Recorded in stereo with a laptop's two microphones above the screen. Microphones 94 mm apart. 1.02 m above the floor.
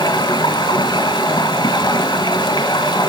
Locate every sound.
0.0 s running water: 50° left (ahead or behind), 2 m